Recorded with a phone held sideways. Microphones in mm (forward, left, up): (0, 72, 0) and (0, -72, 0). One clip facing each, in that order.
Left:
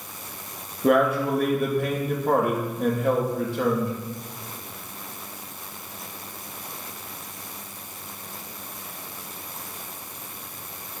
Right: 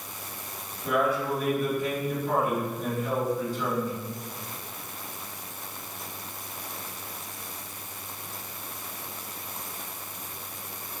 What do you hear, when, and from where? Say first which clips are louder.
0.8 s a man speaking: left 6 dB; 65° left (ahead or behind), 3 m